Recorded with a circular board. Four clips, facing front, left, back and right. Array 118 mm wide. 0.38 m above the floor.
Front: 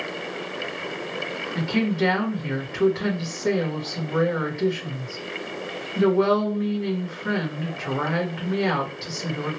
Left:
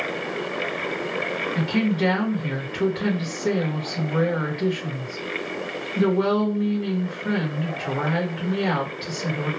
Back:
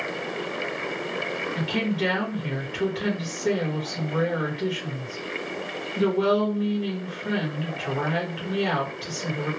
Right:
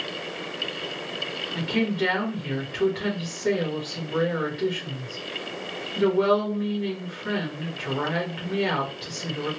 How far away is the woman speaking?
About 1.3 m.